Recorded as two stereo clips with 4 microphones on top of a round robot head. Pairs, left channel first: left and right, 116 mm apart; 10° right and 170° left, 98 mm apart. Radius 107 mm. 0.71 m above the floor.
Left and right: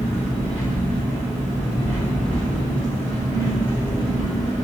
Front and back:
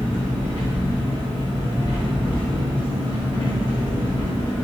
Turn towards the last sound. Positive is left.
turn(degrees=-55)